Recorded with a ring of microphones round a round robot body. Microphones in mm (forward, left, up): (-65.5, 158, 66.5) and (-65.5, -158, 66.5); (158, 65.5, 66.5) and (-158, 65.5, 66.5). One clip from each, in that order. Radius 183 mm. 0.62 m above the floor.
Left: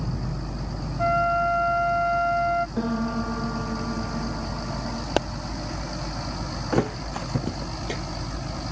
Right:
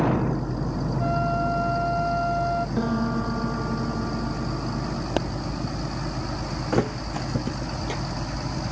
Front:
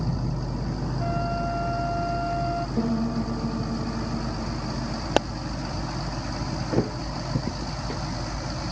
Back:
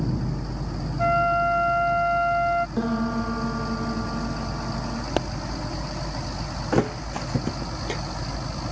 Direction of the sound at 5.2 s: 30° left.